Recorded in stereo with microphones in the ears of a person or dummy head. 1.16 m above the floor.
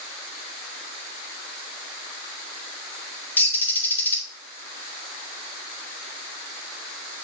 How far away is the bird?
About 1.9 m.